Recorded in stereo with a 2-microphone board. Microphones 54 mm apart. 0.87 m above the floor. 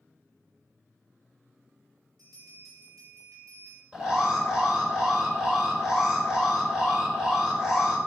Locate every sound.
2.2 s a bell: 80° right, 5 m
3.9 s an alarm: 15° right (ahead or behind), 4.5 m